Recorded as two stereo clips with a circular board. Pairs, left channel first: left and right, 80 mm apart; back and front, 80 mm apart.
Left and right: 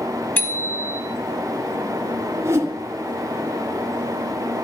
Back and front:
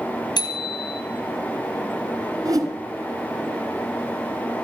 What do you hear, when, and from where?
0.4 s a bicycle bell: 155° left, 3.5 m
2.5 s a whoosh: 35° right, 3 m